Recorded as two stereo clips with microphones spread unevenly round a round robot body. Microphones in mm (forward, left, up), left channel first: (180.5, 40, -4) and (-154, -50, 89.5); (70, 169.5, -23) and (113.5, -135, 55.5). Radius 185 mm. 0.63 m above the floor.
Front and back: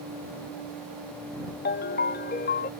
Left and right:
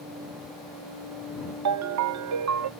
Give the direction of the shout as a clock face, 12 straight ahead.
No shout in this recording.